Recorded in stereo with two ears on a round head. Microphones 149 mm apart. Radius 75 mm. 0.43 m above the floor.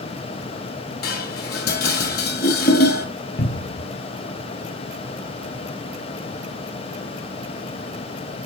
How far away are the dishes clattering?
About 1.7 m.